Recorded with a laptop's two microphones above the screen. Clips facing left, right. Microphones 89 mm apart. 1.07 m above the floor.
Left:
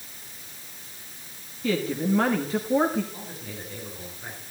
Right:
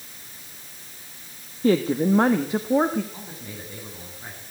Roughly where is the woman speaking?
Right.